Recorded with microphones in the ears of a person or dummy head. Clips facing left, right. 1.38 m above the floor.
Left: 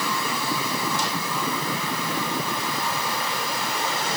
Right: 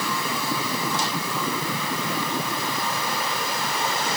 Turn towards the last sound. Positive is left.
No sound to turn to.